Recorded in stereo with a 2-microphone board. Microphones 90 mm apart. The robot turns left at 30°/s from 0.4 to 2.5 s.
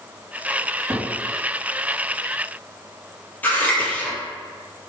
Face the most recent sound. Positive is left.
turn(degrees=20)  # may be behind; listen again after turning